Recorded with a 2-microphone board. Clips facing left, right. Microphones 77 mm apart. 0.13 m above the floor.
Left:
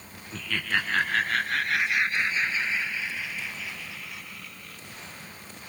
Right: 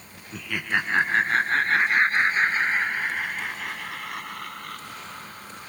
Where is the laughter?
10° right (ahead or behind); by 5.7 s 65° right (ahead or behind).